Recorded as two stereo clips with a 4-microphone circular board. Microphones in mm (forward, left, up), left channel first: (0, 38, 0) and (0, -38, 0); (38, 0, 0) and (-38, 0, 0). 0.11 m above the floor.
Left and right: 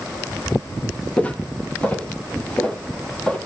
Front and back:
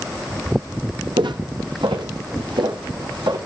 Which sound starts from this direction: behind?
Footsteps, at 1.2 s.